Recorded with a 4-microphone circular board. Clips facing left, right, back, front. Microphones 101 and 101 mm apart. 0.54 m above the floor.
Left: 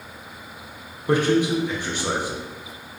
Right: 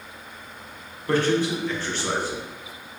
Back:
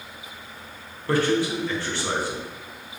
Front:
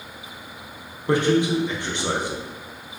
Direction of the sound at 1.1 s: 35° left.